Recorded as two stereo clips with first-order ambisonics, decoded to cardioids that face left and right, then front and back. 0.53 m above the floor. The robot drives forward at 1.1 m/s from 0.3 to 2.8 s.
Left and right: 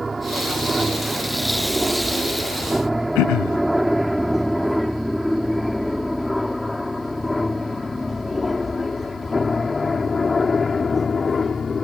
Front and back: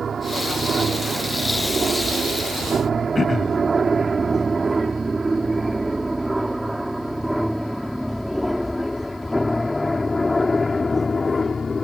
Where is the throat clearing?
75° left.